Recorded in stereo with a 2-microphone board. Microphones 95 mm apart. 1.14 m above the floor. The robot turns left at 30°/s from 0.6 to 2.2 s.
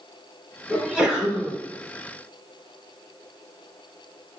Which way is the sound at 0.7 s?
20° right (ahead or behind).